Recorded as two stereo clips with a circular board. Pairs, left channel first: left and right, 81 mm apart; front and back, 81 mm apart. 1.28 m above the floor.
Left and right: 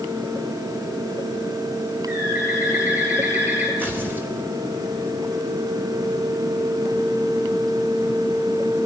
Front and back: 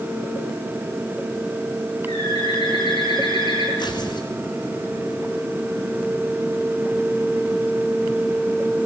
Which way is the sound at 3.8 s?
25° right.